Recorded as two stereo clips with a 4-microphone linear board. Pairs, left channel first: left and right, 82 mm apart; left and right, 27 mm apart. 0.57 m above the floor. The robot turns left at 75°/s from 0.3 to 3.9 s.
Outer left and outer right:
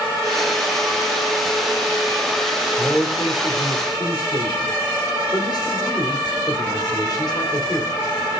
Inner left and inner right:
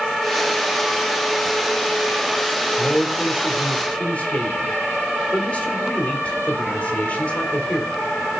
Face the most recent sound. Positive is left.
turn(degrees=70)